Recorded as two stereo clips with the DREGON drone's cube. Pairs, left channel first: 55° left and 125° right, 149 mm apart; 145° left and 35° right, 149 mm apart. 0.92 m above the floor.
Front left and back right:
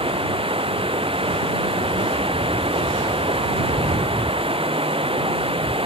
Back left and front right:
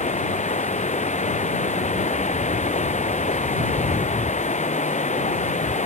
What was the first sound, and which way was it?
Running water, 175° right.